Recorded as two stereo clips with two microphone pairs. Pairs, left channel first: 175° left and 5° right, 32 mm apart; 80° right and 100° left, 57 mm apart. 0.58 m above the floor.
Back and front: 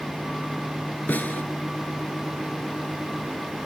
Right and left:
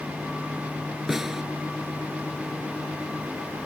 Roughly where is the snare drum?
Behind.